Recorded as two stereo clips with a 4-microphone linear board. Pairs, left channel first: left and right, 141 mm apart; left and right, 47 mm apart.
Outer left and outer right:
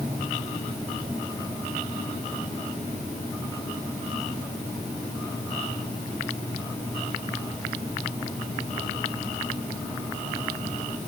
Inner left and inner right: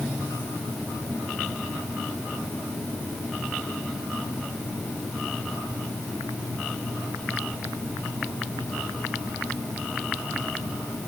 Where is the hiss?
No hiss in this recording.